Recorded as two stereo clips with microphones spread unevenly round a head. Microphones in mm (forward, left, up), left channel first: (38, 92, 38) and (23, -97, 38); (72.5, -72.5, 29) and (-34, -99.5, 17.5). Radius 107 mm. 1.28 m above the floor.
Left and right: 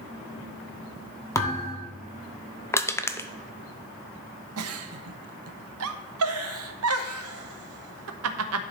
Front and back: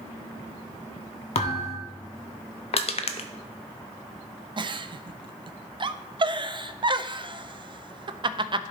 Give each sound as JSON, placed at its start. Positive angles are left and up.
{"t": 1.4, "sound": "a thud", "azimuth_deg": 10, "distance_m": 1.3}
{"t": 2.7, "sound": "crushing", "azimuth_deg": 10, "distance_m": 0.6}
{"t": 4.6, "sound": "a giggle", "azimuth_deg": -115, "distance_m": 0.5}